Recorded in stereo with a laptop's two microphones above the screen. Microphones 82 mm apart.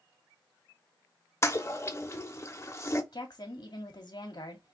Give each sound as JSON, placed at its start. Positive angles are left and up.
{"t": 1.4, "sound": "a toilet flushing", "side_deg": 30, "distance_m": 0.7}
{"t": 3.1, "sound": "a woman speaking", "side_deg": 50, "distance_m": 1.8}